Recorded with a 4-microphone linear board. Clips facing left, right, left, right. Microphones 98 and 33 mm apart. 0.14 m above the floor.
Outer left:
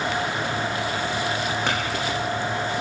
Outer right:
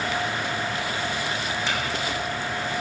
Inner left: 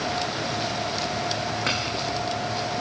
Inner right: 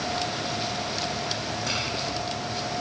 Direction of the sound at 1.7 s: 60° left (ahead or behind).